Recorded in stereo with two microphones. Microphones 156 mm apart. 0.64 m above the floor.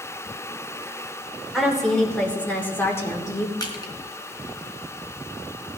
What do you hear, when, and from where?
1.5 s a woman speaking: centre (ahead or behind), 2.5 m; by 3.5 s 25° left (ahead or behind), 1.9 m
3.6 s crushing: 25° left (ahead or behind), 2 m